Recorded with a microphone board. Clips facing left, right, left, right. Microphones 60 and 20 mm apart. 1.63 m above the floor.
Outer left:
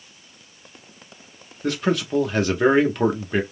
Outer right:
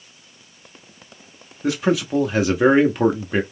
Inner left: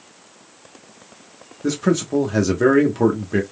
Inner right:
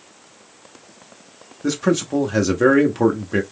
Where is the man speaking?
5° right (ahead or behind), 0.7 m.